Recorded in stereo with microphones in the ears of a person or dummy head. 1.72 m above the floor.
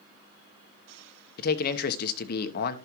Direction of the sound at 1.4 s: 60° left (ahead or behind).